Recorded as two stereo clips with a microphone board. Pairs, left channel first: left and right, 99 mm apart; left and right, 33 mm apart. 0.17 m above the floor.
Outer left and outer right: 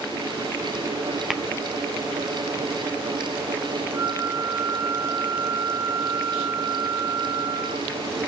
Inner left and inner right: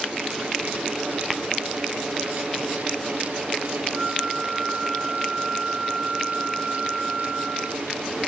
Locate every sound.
1.3 s tapping: centre (ahead or behind), 0.5 m
3.9 s a flute: 5° right (ahead or behind), 3.5 m